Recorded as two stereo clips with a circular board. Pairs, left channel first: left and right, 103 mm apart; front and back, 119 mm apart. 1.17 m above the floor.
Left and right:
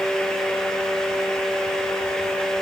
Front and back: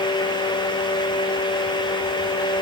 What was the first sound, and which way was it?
Only background noise.